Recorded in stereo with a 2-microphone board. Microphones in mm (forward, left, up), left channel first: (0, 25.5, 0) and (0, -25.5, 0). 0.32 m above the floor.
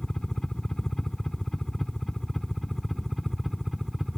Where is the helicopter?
15° left (ahead or behind); by 4.2 s centre (ahead or behind).